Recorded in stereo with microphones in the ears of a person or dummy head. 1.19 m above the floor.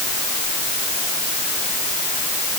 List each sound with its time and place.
Only background noise.